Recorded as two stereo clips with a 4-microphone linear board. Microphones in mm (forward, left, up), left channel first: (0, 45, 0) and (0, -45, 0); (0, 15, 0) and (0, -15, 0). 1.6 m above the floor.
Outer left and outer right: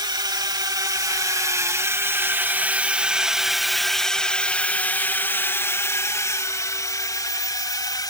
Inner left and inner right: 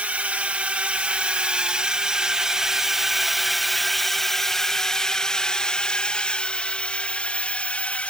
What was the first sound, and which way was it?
A drone, 55° right (ahead or behind).